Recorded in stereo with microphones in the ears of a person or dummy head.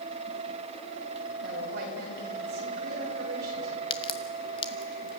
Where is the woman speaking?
50° right (ahead or behind), 6 m.